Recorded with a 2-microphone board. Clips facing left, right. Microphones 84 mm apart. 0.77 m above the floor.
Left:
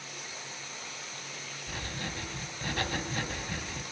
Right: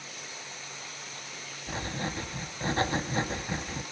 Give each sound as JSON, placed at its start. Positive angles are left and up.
{"t": 1.7, "sound": "writing", "side_deg": -30, "distance_m": 2.0}